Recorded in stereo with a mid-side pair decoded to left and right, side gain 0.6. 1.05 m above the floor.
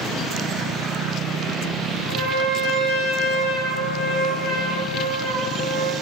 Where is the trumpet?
70° right, 0.6 m.